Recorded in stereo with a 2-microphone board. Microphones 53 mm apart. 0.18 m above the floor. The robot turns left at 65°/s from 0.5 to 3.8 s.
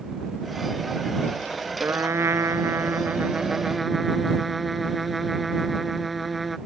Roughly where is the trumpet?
Ahead right.